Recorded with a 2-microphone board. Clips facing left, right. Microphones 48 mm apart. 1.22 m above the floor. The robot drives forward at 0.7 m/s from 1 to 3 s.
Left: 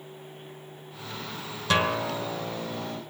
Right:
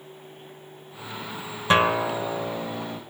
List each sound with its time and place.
1.7 s a guitar: 25° right (ahead or behind), 1.7 m; by 3.0 s 15° right (ahead or behind), 2.5 m